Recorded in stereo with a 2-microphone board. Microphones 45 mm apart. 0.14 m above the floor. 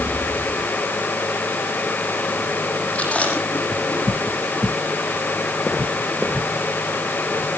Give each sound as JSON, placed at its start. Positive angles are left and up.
{"t": 3.0, "sound": "chewing", "side_deg": 30, "distance_m": 6.0}